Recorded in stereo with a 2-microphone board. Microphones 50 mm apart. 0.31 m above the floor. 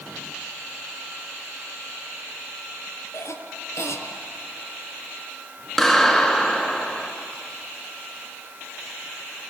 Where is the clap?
5° left (ahead or behind), 3.5 m.